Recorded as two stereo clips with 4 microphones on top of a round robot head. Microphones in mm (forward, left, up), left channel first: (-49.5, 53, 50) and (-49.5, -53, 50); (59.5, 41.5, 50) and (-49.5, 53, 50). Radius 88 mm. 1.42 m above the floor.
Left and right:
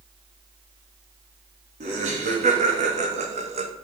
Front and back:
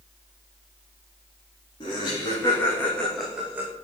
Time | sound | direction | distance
1.8 | laughter | 65° right | 4 m